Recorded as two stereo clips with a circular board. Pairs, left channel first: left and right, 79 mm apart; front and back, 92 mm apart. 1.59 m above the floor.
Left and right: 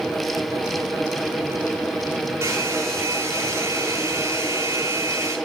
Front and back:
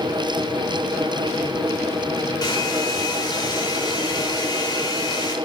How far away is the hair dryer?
About 4 m.